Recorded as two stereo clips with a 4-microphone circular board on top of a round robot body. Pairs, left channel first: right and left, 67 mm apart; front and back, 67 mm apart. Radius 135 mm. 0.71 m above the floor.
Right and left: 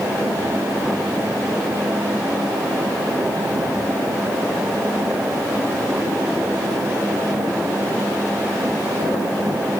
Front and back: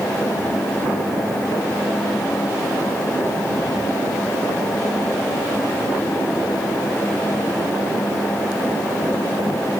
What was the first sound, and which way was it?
Only background noise.